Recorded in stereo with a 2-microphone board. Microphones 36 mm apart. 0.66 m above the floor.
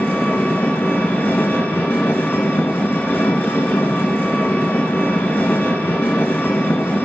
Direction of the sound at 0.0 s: 60° left (ahead or behind).